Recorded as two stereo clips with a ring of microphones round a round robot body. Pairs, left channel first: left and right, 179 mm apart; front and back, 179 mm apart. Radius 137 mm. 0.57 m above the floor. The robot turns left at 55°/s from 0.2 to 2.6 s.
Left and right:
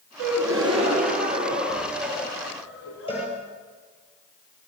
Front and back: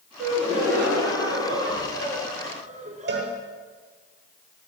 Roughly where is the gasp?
Right.